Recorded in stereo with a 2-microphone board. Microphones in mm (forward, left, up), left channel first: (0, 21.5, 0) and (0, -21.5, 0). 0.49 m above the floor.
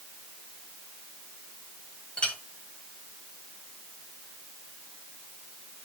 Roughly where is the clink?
Left.